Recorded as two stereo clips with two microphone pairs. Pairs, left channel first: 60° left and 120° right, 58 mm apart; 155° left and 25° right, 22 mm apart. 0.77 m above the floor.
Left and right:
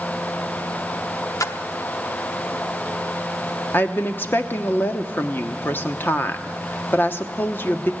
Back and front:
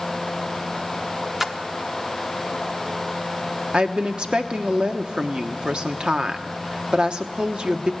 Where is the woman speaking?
15° left, 1.1 m.